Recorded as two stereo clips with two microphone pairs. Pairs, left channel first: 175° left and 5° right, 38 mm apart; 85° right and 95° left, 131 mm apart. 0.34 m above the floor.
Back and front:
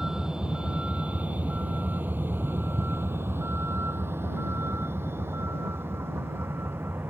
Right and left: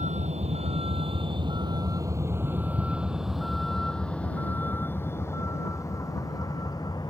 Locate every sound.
0.0 s a vehicle: 70° left; by 7.1 s 25° right